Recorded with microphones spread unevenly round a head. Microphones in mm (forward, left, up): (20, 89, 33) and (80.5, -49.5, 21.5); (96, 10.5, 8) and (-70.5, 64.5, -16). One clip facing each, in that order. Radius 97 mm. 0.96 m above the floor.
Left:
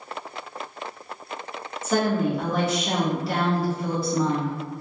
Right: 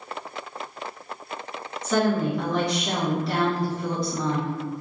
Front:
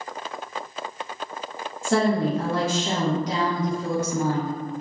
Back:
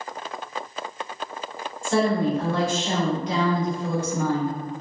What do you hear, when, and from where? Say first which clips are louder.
1.8 s a woman speaking: even, even; 25° left, 0.9 m